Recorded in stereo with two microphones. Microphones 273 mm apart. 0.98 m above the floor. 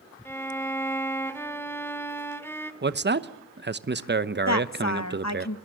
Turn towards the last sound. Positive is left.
turn(degrees=75)  # may be behind; listen again after turning